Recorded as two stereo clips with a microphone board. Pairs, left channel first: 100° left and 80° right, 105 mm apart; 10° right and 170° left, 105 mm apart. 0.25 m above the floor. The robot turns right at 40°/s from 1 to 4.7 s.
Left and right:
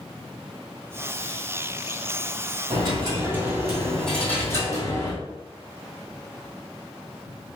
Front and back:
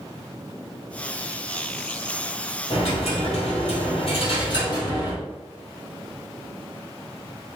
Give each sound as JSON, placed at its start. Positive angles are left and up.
{"t": 2.7, "sound": "a dropped coin", "azimuth_deg": -40, "distance_m": 1.7}